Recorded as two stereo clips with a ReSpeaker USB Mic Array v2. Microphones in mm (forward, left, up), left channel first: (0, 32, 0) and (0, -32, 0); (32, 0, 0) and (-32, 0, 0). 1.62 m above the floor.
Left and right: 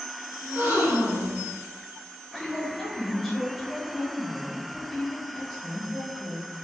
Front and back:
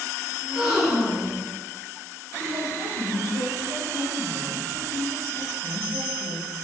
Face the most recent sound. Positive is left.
turn(degrees=175)